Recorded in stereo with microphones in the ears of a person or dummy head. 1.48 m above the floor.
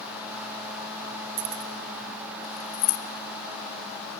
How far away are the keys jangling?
About 0.8 m.